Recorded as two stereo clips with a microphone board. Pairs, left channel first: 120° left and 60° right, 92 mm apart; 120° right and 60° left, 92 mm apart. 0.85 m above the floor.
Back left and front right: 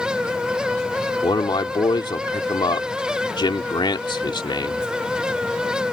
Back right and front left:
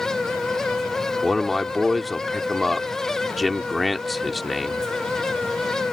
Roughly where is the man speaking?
Behind left.